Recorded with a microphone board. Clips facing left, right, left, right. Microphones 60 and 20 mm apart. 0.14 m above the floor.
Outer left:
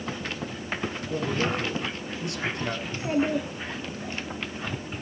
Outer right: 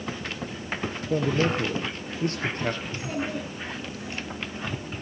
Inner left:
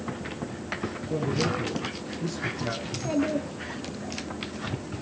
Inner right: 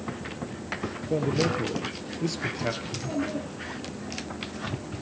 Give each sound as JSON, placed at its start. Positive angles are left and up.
{"t": 1.1, "sound": "a man speaking", "side_deg": -40, "distance_m": 2.5}
{"t": 2.8, "sound": "a child speaking", "side_deg": 35, "distance_m": 1.9}